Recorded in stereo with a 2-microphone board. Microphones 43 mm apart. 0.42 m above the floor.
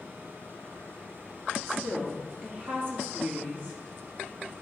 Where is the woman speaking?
45° right (ahead or behind), 3 m.